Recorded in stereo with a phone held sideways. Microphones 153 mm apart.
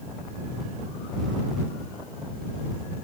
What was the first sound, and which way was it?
Only background noise.